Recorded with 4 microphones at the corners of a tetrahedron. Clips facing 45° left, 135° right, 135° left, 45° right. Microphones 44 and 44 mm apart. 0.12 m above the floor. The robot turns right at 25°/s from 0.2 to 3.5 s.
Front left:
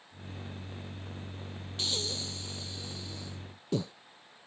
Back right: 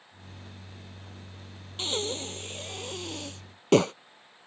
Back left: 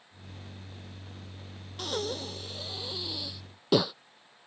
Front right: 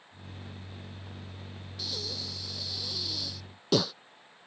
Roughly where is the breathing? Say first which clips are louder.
Back right 5 dB, back left 6 dB; behind.